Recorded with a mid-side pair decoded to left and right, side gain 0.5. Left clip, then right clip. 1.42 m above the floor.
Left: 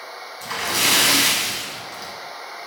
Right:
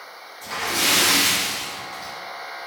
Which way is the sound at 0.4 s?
65° left.